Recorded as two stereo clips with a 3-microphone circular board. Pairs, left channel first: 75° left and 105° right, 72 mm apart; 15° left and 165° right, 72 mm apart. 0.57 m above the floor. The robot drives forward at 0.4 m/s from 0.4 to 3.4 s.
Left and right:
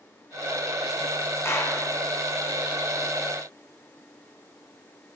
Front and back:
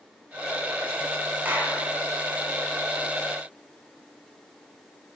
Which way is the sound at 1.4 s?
125° left.